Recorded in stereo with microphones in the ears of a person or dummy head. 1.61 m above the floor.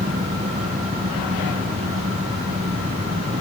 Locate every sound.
0.0 s an engine running: 30° right (ahead or behind)